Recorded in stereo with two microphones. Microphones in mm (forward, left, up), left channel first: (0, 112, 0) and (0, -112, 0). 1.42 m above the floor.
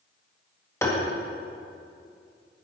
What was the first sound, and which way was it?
Tapping, 10° left (ahead or behind).